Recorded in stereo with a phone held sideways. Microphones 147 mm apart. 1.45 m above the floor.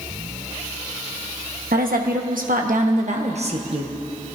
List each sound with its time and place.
1.7 s a woman speaking: 85° right, 1.4 m; by 3.9 s 40° right (ahead or behind), 1.4 m